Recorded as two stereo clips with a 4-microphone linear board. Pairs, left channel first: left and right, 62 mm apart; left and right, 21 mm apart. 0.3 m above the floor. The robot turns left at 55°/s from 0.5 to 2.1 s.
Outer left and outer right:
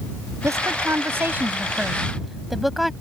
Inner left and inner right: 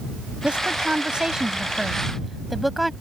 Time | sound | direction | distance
0.4 | a woman speaking | 90° right | ?